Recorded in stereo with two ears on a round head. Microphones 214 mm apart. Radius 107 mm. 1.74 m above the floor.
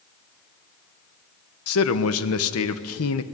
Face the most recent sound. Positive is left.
turn(degrees=65)  # may be behind; listen again after turning